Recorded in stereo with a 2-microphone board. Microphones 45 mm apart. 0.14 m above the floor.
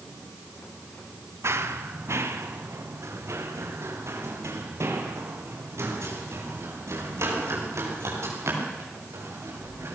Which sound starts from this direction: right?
Running footsteps, at 1.4 s.